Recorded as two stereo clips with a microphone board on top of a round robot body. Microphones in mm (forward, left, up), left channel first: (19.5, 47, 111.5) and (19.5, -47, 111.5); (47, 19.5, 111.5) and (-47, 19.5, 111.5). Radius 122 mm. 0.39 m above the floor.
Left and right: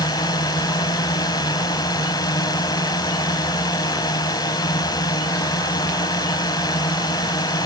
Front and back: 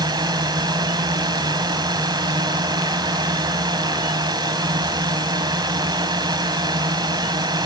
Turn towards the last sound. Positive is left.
turn(degrees=135)